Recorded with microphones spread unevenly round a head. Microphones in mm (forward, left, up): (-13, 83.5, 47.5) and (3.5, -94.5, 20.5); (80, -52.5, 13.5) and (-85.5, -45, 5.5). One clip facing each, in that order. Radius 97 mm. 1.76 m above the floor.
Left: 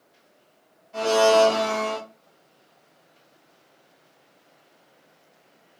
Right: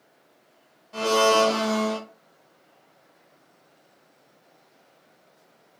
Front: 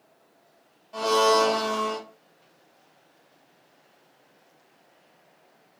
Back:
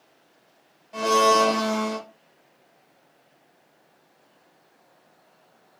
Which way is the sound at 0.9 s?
105° right.